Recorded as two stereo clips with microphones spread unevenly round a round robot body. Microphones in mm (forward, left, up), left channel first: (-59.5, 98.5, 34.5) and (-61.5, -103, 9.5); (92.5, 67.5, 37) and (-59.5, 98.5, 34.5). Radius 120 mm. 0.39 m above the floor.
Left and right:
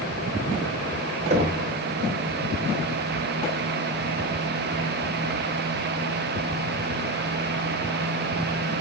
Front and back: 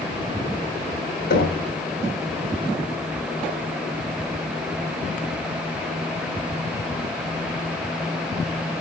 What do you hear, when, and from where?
1.3 s knocking: 35° right, 2.5 m